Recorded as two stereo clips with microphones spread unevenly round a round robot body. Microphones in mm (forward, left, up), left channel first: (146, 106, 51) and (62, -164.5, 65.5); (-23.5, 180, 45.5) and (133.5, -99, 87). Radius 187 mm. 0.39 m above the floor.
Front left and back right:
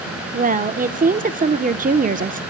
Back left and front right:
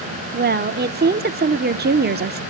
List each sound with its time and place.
0.3 s a woman speaking: 90° right, 1.0 m